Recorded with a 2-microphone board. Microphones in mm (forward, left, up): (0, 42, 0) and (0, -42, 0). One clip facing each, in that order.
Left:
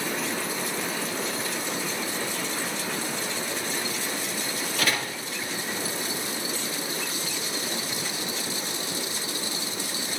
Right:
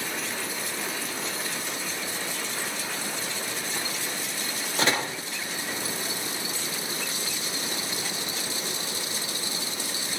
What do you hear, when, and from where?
4.8 s a door slam: 25° right (ahead or behind), 1.9 m